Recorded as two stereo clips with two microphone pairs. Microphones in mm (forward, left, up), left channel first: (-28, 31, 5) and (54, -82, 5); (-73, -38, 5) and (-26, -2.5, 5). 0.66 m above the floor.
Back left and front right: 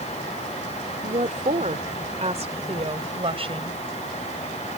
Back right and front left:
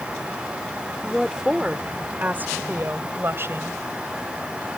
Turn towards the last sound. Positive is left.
turn(degrees=-5)